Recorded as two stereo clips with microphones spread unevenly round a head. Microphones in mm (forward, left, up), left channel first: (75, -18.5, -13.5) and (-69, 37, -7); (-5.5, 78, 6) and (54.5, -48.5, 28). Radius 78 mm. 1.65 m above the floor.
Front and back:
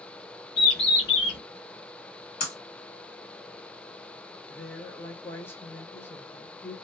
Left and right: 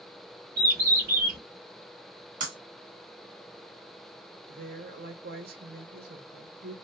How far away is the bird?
About 2 m.